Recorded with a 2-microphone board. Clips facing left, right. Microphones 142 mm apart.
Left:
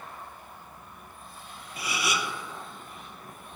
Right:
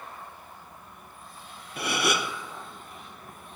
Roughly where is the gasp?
Right.